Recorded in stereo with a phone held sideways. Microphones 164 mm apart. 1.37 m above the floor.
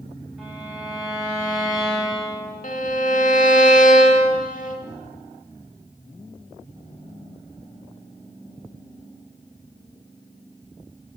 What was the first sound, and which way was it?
A violin, centre (ahead or behind).